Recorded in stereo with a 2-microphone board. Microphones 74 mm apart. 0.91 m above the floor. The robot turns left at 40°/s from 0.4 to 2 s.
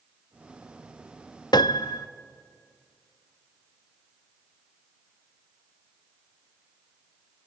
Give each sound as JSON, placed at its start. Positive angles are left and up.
{"t": 1.5, "sound": "a piano", "side_deg": 80, "distance_m": 0.7}